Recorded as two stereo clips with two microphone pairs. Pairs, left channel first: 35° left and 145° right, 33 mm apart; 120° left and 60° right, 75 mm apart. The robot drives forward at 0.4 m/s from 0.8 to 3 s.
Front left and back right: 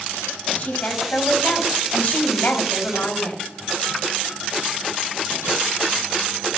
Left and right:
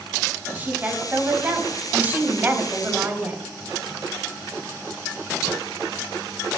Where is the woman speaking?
Straight ahead, 4 m; by 3.4 s 5° left, 3 m.